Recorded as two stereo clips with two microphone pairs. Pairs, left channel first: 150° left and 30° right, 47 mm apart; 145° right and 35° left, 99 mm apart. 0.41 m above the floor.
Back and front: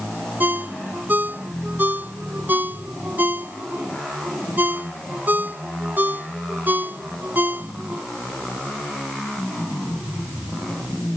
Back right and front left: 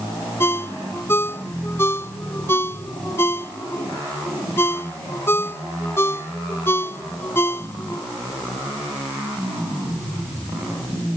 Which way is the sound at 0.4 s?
75° right.